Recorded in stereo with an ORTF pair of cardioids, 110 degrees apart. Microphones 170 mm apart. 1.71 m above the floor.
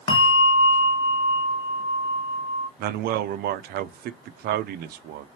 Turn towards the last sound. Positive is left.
turn(degrees=-70)